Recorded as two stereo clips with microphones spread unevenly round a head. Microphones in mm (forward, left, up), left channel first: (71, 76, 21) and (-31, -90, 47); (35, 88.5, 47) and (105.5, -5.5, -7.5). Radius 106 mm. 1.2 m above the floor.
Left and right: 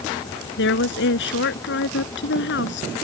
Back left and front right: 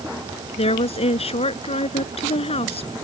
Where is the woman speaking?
95° left.